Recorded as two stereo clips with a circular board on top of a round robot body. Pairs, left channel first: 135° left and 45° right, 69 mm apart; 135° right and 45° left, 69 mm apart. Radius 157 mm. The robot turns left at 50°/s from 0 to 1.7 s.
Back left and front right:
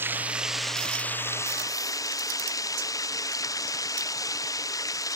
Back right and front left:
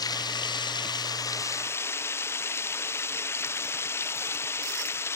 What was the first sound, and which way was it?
Running water, 105° right.